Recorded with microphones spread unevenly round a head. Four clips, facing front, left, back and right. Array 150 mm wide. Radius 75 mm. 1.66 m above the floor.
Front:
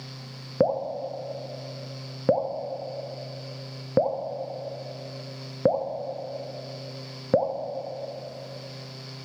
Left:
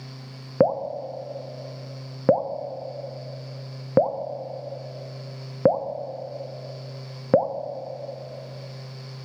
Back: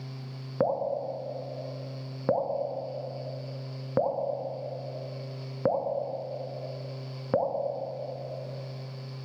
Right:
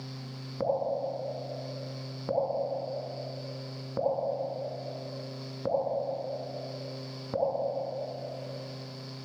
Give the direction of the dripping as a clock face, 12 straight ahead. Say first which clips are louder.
Left 7 dB, front 3 dB; 10 o'clock.